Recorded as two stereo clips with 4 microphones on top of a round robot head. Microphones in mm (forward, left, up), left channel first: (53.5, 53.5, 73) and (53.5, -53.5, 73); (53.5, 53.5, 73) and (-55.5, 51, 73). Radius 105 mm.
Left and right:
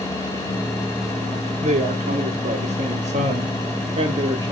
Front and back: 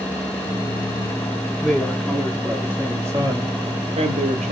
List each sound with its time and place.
1.6 s a woman speaking: 85° right, 3 m; by 4.5 s 150° right, 1.6 m